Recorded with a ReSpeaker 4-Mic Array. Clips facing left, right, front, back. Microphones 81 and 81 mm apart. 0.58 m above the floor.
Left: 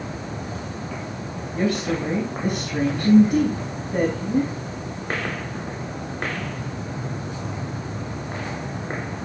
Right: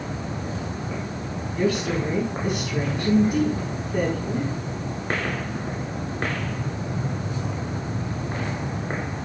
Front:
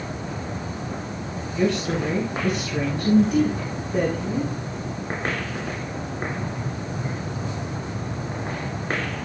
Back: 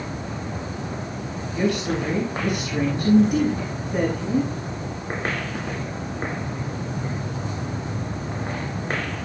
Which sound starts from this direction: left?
A woman speaking, at 1.5 s.